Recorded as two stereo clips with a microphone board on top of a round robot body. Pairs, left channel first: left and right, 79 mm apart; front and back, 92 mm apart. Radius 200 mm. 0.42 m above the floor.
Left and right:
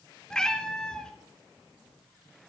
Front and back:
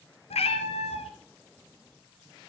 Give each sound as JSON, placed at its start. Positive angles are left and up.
{"t": 0.3, "sound": "a cat meowing", "azimuth_deg": 10, "distance_m": 1.7}